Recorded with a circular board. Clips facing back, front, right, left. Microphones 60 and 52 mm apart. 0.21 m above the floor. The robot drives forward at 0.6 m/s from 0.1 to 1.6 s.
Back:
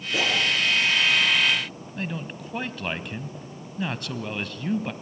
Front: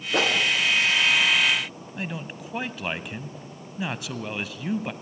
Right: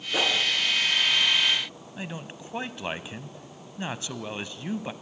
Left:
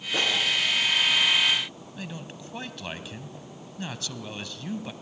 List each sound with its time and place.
0.1 s a whoosh: 15° right, 2.5 m
2.0 s a man speaking: 75° right, 1.1 m